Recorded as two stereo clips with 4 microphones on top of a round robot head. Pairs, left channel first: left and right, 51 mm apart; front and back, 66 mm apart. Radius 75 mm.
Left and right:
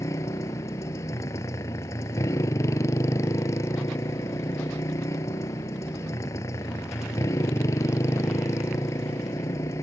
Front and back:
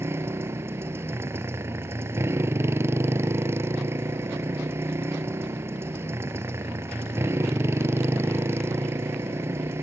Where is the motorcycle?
130° left.